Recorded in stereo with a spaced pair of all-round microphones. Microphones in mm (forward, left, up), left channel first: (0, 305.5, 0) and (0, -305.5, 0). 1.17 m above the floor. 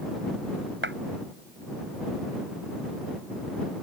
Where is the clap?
20° right (ahead or behind).